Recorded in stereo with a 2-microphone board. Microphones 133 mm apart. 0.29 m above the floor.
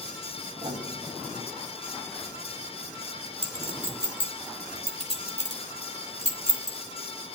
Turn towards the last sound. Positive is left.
turn(degrees=-60)  # may be behind; listen again after turning